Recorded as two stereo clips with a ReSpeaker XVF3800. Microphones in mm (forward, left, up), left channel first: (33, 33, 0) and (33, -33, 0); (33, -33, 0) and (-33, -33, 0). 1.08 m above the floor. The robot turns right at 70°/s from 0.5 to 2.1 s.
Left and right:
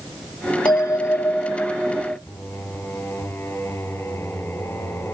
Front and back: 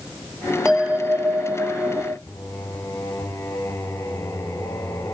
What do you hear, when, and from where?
0.7 s a bell: 100° left, 1.4 m; by 2.2 s 155° right, 1.4 m
2.3 s singing: 35° left, 4 m